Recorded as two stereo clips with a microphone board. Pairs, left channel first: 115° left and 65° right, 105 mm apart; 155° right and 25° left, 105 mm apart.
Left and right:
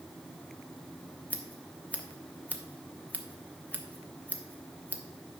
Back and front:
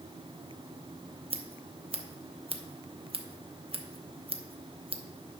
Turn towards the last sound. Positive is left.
turn(degrees=35)